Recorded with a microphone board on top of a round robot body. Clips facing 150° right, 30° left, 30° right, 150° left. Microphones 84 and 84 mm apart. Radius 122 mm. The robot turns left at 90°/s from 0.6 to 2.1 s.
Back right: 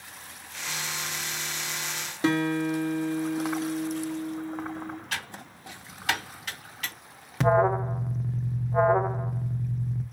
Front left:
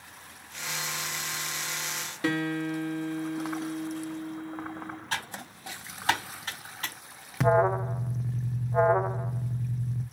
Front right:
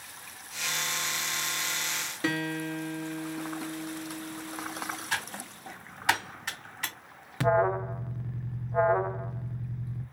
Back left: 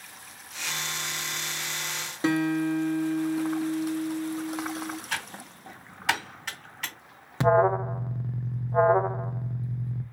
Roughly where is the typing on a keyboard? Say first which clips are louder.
Front left 1 dB, front right 1 dB; ahead left.